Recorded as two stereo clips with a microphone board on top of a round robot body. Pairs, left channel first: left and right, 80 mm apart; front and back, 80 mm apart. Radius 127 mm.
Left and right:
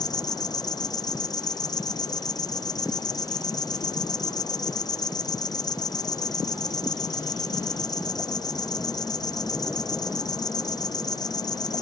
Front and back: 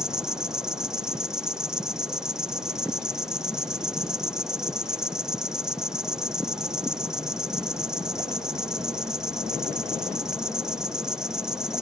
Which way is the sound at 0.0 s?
100° left.